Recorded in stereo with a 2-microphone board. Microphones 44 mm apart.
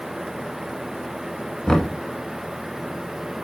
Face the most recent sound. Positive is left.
turn(degrees=15)  # may be behind; listen again after turning